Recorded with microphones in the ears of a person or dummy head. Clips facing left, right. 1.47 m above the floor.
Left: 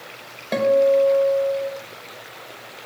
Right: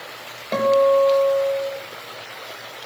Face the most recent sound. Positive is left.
turn(degrees=15)  # may be behind; listen again after turning